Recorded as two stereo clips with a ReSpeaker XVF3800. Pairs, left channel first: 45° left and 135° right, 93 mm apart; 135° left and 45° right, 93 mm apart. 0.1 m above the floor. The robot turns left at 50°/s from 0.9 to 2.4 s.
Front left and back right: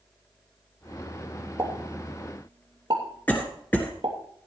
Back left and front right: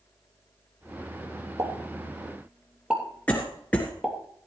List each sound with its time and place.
1.6 s a pop: 80° right, 3 m; by 4.2 s 120° right, 3 m
3.3 s a cough: 85° left, 1.5 m